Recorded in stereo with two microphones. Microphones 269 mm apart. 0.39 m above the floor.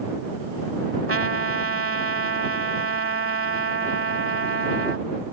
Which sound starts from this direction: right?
A trumpet, at 1.1 s.